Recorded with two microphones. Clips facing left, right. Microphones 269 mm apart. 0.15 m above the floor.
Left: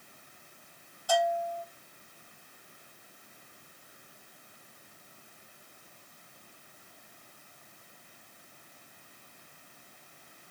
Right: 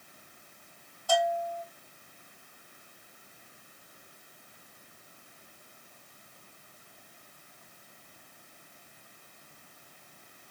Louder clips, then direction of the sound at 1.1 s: Even; 20° left (ahead or behind).